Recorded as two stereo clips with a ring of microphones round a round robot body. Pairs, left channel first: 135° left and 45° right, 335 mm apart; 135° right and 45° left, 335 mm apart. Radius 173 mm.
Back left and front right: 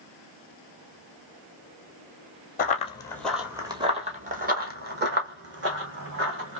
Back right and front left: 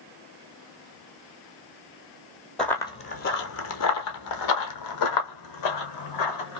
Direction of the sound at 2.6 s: 140° left.